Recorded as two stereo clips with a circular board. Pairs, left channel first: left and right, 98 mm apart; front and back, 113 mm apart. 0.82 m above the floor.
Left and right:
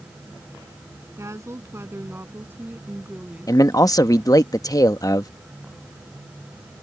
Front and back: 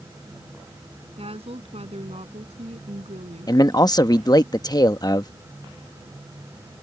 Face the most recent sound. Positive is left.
turn(degrees=45)